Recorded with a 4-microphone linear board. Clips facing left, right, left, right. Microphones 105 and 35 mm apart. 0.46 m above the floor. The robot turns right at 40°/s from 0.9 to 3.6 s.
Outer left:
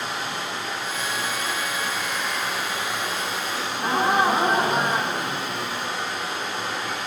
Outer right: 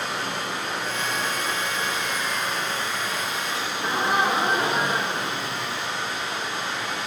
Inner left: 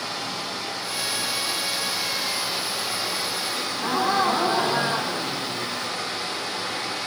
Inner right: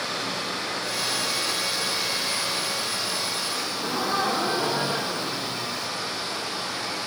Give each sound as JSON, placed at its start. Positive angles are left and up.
{"t": 0.0, "sound": "running water", "azimuth_deg": -60, "distance_m": 5.0}
{"t": 3.5, "sound": "a gasp", "side_deg": 40, "distance_m": 1.7}